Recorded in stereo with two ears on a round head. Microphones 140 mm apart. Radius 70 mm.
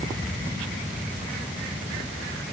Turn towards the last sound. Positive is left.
No sound to turn to.